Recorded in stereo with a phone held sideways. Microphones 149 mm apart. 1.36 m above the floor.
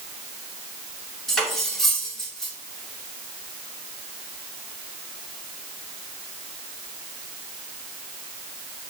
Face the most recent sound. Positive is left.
turn(degrees=5)  # may be behind; listen again after turning